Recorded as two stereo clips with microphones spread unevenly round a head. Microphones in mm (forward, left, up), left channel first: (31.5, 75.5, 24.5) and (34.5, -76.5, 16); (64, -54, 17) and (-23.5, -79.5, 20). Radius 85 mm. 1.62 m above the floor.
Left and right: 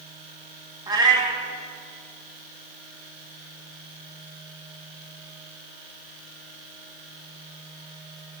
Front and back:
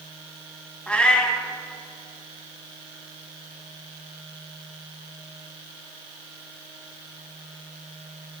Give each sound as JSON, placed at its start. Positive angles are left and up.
{"t": 0.9, "sound": "a cat meowing", "azimuth_deg": -50, "distance_m": 1.6}